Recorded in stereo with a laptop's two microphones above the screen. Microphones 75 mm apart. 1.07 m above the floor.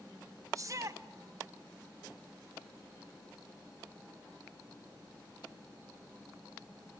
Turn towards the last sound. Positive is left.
turn(degrees=-45)  # may be behind; listen again after turning